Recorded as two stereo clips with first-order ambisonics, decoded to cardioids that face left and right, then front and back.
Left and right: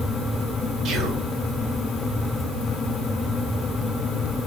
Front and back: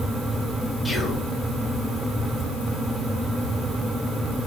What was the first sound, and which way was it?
Whispering, 85° right.